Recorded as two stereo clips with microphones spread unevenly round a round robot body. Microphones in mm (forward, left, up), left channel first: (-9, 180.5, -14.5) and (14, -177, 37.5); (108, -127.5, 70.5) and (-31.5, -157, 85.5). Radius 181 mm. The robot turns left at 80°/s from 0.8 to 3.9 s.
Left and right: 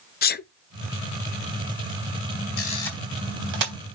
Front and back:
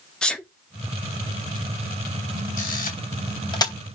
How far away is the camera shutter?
About 3.5 m.